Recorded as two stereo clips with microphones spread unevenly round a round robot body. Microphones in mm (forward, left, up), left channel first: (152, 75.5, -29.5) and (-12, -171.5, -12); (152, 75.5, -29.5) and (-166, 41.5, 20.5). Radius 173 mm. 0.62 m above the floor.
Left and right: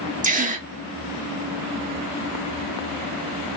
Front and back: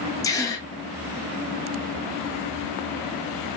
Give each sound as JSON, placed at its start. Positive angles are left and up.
{"t": 0.2, "sound": "a gasp", "azimuth_deg": -65, "distance_m": 1.7}